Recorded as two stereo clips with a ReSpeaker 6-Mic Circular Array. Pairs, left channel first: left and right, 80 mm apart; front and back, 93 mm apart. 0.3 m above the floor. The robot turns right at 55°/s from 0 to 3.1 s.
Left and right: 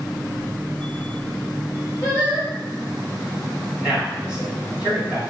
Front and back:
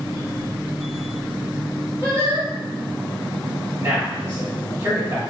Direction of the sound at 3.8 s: 155° right.